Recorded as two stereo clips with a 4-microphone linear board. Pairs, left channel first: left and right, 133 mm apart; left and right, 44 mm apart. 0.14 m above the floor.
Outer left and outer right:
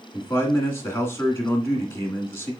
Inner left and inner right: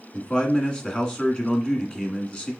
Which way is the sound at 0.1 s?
20° left (ahead or behind).